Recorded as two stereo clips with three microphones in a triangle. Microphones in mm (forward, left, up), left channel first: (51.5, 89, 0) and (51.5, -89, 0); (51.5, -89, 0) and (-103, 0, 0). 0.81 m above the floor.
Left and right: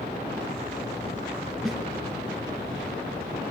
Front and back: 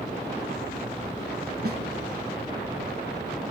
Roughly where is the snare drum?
Behind.